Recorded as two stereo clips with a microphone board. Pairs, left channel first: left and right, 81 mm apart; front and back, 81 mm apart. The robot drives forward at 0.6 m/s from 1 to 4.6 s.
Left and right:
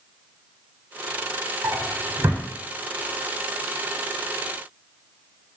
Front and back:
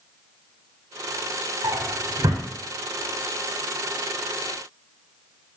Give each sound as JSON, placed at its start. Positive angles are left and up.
{"t": 1.6, "sound": "a drawer", "azimuth_deg": -150, "distance_m": 2.5}